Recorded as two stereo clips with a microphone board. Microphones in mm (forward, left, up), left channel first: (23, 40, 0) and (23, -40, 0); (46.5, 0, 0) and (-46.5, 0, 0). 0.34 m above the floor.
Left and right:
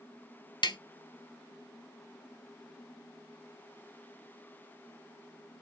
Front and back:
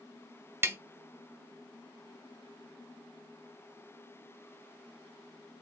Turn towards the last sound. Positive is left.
turn(degrees=115)